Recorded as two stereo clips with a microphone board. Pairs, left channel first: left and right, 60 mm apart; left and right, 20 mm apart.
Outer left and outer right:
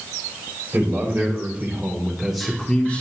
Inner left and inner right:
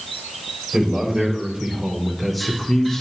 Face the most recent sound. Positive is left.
turn(degrees=25)  # may be behind; listen again after turning